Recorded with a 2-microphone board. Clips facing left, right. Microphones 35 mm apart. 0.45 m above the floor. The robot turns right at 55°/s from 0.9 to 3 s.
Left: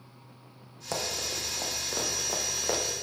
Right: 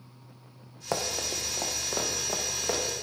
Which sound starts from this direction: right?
Running footsteps, at 0.9 s.